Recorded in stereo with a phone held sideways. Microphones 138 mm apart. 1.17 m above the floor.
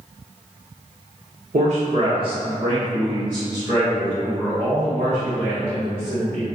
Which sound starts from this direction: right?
A man speaking, at 1.5 s.